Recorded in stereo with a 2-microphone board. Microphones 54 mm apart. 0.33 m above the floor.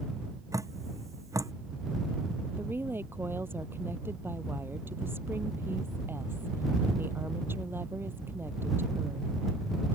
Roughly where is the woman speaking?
Right.